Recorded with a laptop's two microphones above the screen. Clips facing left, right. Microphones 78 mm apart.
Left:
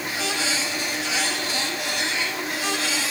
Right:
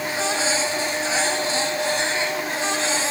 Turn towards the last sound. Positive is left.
turn(degrees=-30)  # may be behind; listen again after turning